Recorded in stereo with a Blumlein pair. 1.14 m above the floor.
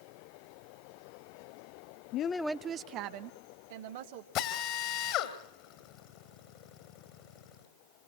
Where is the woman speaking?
40° left, 0.6 m; by 4.2 s 55° right, 2.5 m.